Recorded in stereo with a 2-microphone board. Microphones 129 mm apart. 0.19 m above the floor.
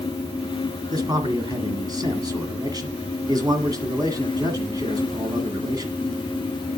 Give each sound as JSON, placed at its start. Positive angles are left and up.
{"t": 0.9, "sound": "a man speaking", "side_deg": -30, "distance_m": 1.6}